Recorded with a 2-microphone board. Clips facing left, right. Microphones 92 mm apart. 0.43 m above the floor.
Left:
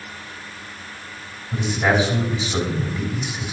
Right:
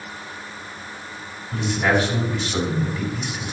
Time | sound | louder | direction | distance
1.5 | a man speaking | left 1 dB | 15° left (ahead or behind) | 3.5 m